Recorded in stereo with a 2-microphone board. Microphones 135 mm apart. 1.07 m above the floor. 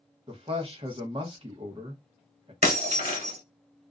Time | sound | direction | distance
0.3 | a man speaking | 40° right (ahead or behind) | 0.9 m
2.6 | breaking glass | 55° right (ahead or behind) | 1.5 m